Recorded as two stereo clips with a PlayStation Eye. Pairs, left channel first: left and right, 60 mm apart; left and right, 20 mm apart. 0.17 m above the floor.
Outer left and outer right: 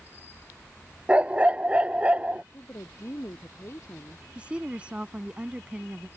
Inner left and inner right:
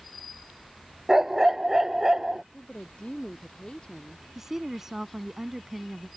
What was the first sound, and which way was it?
A dog barking, 20° right (ahead or behind).